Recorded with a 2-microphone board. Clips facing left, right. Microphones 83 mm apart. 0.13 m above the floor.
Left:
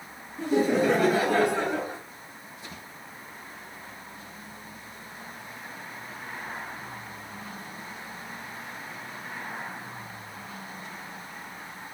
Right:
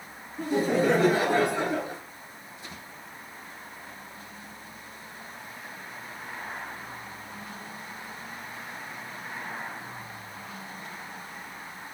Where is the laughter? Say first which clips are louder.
Left 1 dB; 45° right (ahead or behind), 2 m; by 2.0 s 10° left (ahead or behind), 1.2 m.